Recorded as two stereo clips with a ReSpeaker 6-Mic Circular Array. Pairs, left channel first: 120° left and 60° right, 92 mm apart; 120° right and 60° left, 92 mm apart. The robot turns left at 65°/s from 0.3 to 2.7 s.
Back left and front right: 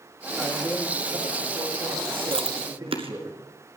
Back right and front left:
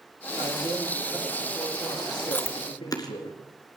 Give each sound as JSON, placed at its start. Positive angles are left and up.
{"t": 0.4, "sound": "a man speaking", "azimuth_deg": 40, "distance_m": 9.0}
{"t": 2.3, "sound": "chewing", "azimuth_deg": -45, "distance_m": 2.0}